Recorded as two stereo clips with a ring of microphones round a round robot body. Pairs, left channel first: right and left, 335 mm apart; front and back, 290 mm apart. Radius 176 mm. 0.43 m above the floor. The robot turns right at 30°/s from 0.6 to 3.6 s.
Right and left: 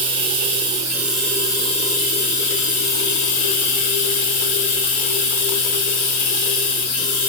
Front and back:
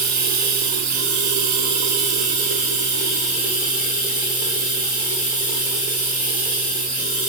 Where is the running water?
165° left, 0.8 m; by 7.3 s 105° right, 0.8 m.